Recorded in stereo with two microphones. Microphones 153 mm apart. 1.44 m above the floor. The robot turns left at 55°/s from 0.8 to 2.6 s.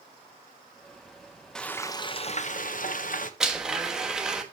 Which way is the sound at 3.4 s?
5° right (ahead or behind).